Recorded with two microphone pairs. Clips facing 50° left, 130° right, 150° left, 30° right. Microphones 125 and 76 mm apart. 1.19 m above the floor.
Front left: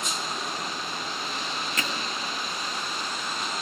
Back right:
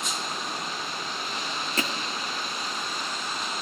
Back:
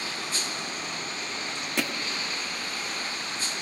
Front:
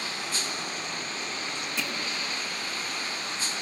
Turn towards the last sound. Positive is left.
turn(degrees=170)